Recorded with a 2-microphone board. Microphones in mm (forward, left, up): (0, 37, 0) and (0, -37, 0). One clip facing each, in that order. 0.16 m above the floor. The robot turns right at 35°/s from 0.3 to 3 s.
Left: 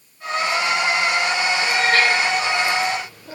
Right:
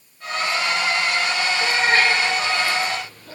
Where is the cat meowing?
35° right (ahead or behind), 1.5 m; by 3.4 s 15° left (ahead or behind), 1.5 m.